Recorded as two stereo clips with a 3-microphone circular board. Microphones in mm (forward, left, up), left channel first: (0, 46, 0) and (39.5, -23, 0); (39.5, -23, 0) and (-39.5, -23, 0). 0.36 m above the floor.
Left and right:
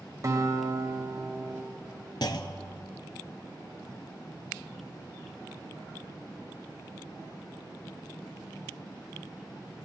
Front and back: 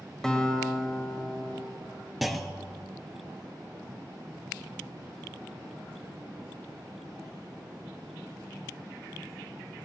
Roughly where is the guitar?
Right.